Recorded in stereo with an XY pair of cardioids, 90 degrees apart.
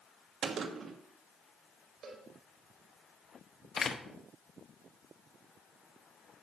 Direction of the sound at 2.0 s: 70° right.